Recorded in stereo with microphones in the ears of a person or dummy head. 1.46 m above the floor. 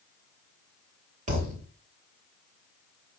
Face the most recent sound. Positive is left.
turn(degrees=-35)  # may be behind; listen again after turning